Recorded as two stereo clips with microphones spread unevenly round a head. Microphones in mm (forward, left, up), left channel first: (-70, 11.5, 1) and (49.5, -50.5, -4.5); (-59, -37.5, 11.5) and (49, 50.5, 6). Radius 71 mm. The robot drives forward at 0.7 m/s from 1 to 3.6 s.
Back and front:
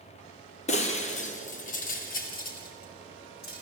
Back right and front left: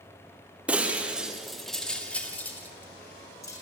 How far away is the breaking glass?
About 2 m.